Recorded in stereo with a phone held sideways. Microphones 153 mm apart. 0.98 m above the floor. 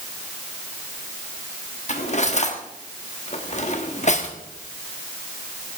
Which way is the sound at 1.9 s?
50° left (ahead or behind).